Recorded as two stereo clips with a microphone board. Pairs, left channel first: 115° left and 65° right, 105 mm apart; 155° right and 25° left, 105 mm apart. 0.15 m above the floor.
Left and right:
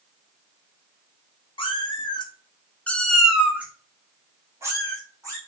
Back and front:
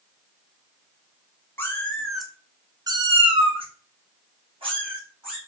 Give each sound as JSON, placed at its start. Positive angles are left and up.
{"t": 1.6, "sound": "a cat meowing", "azimuth_deg": 135, "distance_m": 0.8}